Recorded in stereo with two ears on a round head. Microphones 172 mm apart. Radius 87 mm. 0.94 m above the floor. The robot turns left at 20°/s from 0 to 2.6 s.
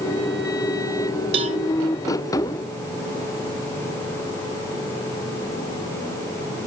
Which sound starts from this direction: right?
A cowbell, at 1.3 s.